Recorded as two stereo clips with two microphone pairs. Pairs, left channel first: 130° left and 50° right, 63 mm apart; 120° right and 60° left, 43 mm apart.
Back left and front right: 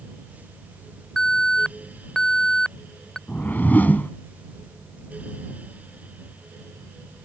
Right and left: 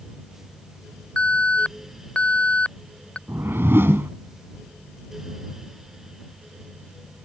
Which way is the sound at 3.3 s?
70° left.